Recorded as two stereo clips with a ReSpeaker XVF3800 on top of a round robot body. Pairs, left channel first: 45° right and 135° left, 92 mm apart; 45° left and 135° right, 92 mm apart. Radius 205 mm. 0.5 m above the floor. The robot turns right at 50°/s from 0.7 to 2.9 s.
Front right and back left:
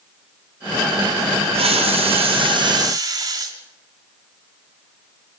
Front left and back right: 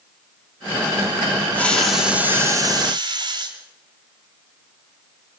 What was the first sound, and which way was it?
A hiss, 120° left.